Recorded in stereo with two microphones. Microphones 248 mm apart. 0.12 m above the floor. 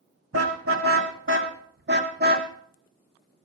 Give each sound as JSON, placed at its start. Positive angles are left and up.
{"t": 0.3, "sound": "a car horn", "side_deg": -60, "distance_m": 3.0}